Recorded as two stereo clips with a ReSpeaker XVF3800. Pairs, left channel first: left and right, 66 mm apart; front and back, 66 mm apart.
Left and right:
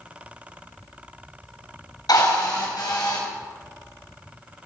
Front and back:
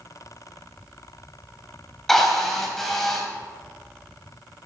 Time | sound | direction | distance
2.1 | a drill | 85° left | 3.5 m